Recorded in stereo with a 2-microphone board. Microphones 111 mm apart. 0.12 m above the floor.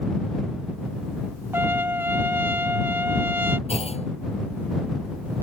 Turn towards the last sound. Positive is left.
turn(degrees=60)  # may be behind; listen again after turning